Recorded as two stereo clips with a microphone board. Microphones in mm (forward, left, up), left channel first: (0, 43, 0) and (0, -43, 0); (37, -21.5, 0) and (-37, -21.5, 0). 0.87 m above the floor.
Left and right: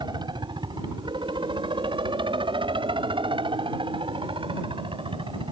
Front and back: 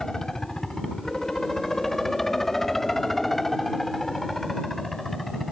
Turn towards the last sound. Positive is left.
turn(degrees=-85)